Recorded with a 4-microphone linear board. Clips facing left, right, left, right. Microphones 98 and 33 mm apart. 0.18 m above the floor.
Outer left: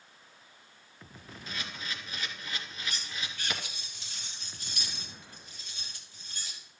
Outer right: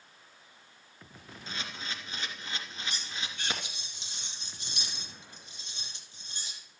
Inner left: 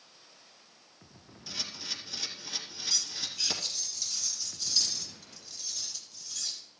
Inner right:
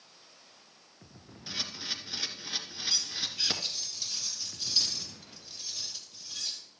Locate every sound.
1.5 s a camera shutter: 25° right (ahead or behind), 2 m
2.9 s cutlery clinking: 25° right (ahead or behind), 2 m